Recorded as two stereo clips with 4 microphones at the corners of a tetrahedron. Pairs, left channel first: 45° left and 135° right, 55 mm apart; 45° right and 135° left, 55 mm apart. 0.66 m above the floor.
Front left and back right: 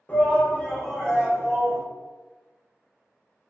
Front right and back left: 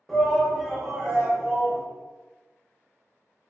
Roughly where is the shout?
Ahead left.